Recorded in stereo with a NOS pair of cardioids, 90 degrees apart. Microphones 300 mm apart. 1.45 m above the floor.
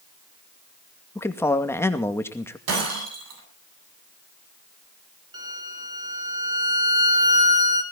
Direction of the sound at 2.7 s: 55° right.